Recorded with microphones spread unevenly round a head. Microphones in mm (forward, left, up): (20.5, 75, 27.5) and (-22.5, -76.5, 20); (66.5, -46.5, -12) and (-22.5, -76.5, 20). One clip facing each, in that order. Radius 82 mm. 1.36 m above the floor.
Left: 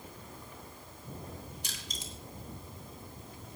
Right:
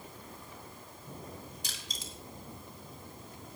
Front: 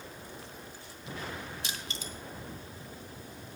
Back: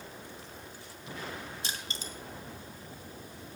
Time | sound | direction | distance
1.6 | crushing | 125° right | 2.5 m